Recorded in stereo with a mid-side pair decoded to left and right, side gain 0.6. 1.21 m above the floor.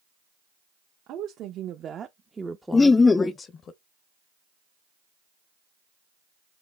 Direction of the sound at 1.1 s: 60° right.